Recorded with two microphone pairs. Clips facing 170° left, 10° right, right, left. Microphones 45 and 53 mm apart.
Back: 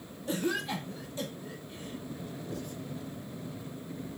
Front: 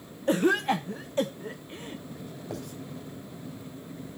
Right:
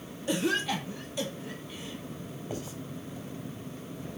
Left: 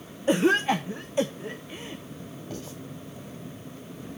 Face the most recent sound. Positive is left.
turn(degrees=-15)